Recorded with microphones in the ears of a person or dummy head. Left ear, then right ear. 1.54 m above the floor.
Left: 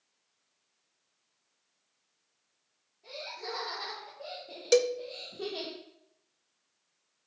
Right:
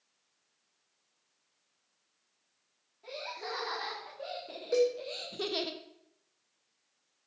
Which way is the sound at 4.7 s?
75° left (ahead or behind).